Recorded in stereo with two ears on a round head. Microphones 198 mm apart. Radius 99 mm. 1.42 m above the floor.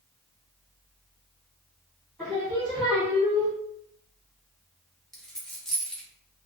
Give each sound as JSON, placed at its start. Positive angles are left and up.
{"t": 2.2, "sound": "singing", "side_deg": -5, "distance_m": 1.7}
{"t": 5.1, "sound": "a dropped coin", "side_deg": 5, "distance_m": 0.8}